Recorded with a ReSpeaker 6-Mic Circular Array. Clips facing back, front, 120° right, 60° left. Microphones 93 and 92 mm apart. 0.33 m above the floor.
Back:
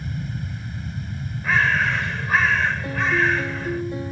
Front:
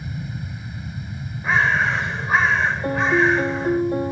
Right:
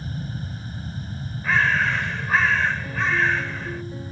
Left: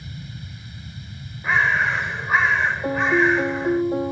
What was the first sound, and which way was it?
An aircraft, 85° right.